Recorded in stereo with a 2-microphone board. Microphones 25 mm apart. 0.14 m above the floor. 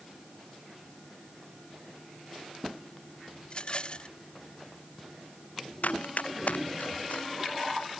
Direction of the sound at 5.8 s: 75° left (ahead or behind).